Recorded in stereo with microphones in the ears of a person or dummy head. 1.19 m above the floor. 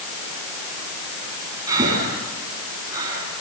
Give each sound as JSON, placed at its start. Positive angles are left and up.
{"t": 1.7, "sound": "breathing", "side_deg": -20, "distance_m": 8.0}